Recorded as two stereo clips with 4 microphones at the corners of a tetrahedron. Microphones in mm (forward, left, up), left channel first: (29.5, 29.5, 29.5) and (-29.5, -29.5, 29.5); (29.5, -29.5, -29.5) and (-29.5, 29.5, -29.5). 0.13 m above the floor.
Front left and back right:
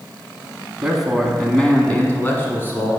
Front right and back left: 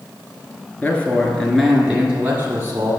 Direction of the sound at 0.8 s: 60° right.